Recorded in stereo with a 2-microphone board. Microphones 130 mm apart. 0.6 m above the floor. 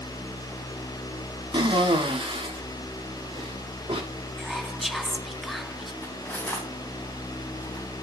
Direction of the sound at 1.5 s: 40° right (ahead or behind).